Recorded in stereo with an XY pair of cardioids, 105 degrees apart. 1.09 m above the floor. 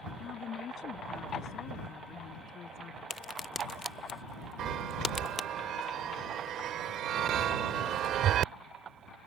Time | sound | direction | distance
0.2 | a woman speaking | 60° left | ?
3.1 | a crack | 30° left | ?
4.6 | a chime | 70° right | ?